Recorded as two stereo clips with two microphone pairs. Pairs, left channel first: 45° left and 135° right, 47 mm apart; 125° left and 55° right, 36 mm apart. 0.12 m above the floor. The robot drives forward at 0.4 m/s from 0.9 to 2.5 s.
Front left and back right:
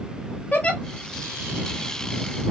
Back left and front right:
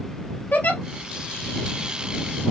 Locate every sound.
0.5 s a giggle: 95° left, 1.0 m